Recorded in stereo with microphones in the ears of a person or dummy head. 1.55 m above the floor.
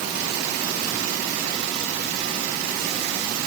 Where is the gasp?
I don't hear a gasp.